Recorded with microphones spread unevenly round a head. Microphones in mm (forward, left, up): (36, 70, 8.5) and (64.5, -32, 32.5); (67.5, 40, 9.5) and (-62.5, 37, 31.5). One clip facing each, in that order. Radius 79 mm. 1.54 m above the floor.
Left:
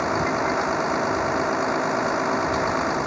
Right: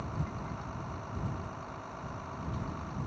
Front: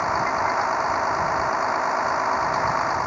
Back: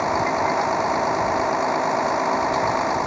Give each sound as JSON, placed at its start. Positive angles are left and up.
{"t": 0.0, "sound": "a vehicle", "azimuth_deg": 120}